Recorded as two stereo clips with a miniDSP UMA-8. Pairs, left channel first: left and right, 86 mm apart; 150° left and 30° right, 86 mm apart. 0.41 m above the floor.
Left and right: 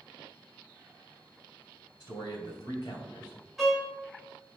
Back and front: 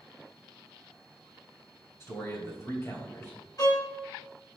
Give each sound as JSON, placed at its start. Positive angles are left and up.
{"t": 2.0, "sound": "a man speaking", "azimuth_deg": 105, "distance_m": 2.0}
{"t": 3.6, "sound": "a violin", "azimuth_deg": 180, "distance_m": 1.6}